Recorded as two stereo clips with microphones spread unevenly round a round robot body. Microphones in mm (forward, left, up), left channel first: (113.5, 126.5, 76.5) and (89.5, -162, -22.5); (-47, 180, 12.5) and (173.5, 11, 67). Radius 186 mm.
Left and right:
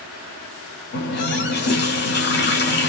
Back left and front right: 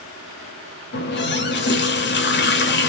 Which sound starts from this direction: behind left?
A running tap, at 0.9 s.